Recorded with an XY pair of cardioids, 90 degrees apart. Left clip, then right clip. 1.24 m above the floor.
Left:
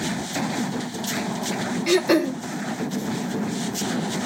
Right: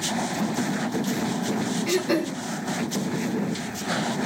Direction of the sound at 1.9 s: 60° left.